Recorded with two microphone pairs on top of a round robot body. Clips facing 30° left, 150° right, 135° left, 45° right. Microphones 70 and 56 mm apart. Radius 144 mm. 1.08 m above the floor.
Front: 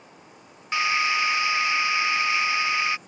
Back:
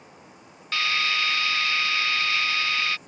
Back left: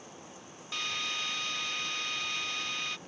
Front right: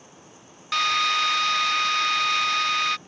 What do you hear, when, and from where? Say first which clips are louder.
0.7 s a drill: front 3 dB, front right 14 dB; 40° right